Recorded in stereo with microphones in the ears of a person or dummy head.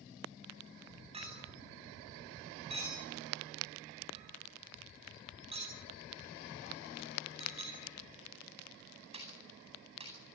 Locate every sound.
1.1 s a clink: 35° right (ahead or behind), 9.5 m